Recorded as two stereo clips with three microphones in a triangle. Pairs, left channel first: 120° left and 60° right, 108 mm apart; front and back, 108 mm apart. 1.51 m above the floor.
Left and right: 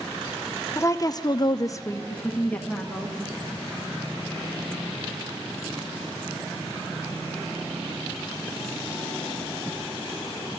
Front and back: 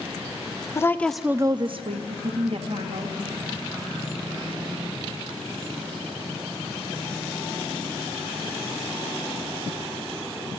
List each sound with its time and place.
0.8 s a woman speaking: 60° left, 0.7 m; by 3.1 s 155° right, 1.7 m